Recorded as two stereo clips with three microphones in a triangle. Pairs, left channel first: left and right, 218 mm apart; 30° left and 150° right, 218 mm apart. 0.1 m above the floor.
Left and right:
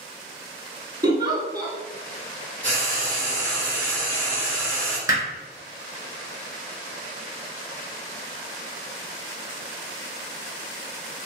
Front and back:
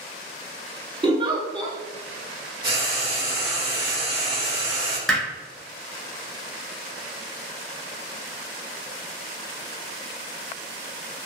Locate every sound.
1.0 s a giggle: 135° right, 0.6 m
2.6 s frying: 165° left, 1.4 m
5.1 s hammering: 60° right, 1.0 m